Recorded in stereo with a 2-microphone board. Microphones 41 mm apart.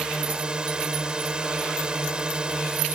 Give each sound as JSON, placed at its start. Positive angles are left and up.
{"t": 0.0, "sound": "a drone", "side_deg": -20}